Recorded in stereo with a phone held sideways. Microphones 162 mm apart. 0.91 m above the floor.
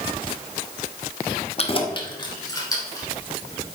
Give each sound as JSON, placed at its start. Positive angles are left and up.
{"t": 1.6, "sound": "keys jangling", "side_deg": 40, "distance_m": 0.9}